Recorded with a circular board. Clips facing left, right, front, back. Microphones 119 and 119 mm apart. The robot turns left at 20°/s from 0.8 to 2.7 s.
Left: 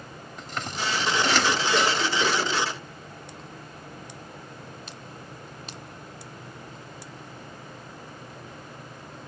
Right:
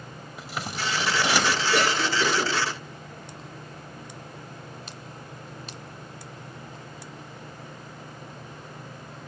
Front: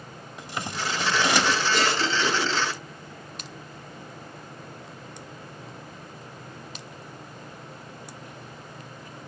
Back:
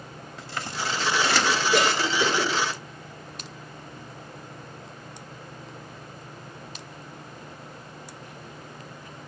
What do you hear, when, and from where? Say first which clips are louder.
0.4 s scissors: even, front 1 dB; 25° right, 0.8 m; by 1.6 s 40° right, 0.8 m
1.7 s a cough: even, back 2 dB; 165° right, 3 m; by 2.5 s straight behind, 3 m